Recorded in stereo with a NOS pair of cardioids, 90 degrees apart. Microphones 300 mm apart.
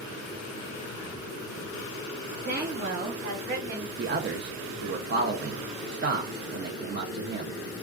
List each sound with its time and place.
2.5 s a woman speaking: 30° right, 0.8 m; by 3.9 s 60° right, 1.5 m
4.0 s a man speaking: 40° right, 0.6 m